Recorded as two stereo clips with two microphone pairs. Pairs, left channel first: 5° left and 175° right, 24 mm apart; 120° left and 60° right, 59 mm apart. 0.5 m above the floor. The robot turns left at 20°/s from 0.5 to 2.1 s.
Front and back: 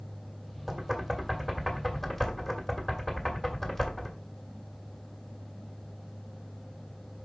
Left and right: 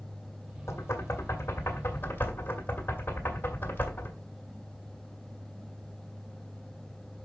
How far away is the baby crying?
I don't hear a baby crying.